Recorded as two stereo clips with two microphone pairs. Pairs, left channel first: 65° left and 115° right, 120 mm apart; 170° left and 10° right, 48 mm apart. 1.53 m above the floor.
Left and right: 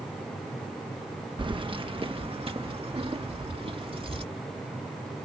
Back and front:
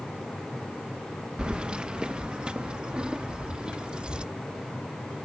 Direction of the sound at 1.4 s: 80° right.